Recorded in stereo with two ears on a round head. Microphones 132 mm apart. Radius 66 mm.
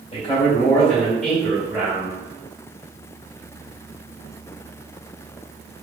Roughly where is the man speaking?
Left.